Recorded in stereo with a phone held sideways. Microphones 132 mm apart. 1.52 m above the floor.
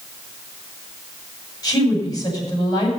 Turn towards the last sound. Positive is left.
turn(degrees=30)  # may be behind; listen again after turning